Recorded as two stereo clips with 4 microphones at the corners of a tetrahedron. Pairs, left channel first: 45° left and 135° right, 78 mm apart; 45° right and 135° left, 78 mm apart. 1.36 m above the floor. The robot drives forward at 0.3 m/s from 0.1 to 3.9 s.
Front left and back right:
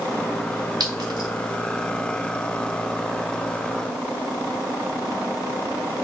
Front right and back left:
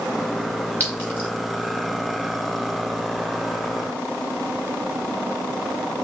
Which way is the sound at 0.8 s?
110° right.